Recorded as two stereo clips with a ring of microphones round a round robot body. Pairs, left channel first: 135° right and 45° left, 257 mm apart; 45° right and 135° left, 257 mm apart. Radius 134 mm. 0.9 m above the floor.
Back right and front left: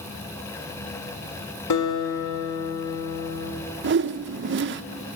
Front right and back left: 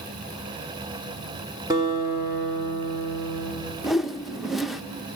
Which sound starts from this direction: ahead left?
A whoosh, at 3.8 s.